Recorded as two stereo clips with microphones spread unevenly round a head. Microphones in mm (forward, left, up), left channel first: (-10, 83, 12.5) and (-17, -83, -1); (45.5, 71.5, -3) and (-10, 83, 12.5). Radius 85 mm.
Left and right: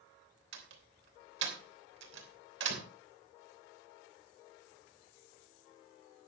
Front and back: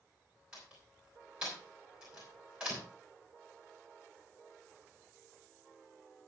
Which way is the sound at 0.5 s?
110° right.